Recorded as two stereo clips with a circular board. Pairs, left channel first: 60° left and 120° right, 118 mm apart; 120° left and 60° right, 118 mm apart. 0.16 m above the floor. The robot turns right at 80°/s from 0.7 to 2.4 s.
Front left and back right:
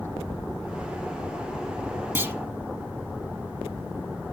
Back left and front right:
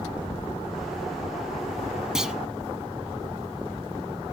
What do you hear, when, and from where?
2.1 s a clunk: 135° right, 0.6 m; by 2.4 s 120° right, 0.6 m